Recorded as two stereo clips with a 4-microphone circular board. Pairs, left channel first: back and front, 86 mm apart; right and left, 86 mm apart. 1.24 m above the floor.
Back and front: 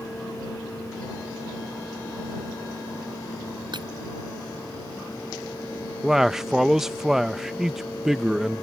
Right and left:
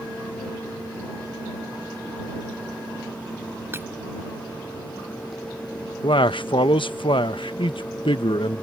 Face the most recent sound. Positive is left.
turn(degrees=-85)